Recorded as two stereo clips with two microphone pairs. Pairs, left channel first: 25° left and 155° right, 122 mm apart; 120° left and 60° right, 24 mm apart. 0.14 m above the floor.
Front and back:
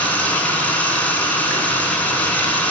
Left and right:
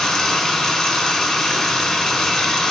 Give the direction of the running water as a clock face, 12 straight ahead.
9 o'clock.